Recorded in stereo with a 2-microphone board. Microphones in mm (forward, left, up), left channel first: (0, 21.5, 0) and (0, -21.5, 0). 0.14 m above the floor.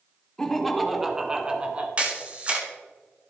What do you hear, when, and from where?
0.4 s laughter: 10° left (ahead or behind), 1.4 m; by 1.9 s 30° right (ahead or behind), 1.3 m
2.0 s a camera shutter: 30° right (ahead or behind), 1.6 m